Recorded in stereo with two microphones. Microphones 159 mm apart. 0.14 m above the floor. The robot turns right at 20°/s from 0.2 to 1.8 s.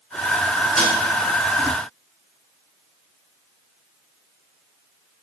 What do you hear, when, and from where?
0.8 s a snare drum: 55° left (ahead or behind), 3.5 m; by 0.9 s 50° left (ahead or behind), 3.5 m